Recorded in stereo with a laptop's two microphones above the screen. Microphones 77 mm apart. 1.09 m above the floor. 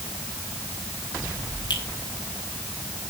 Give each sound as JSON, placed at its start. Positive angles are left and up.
{"t": 1.7, "sound": "a finger snap", "side_deg": 65, "distance_m": 6.0}